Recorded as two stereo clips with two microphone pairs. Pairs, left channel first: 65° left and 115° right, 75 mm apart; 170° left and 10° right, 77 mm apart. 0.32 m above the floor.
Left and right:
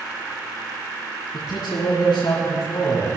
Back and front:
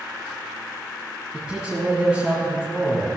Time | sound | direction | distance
1.3 | a man speaking | 70° left | 2.5 m